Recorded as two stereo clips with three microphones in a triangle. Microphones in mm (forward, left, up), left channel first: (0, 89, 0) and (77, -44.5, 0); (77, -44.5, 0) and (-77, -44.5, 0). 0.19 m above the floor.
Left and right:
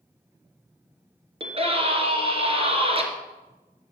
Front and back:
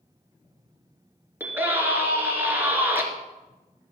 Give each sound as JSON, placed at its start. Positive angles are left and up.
{"t": 1.4, "sound": "a scream", "azimuth_deg": -105, "distance_m": 2.5}